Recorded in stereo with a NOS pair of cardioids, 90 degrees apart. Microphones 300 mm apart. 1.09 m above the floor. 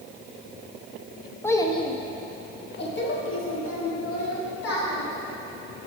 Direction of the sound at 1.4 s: 5° left.